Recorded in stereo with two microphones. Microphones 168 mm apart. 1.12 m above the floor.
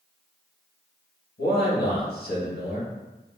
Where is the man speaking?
90° left, 1.6 m.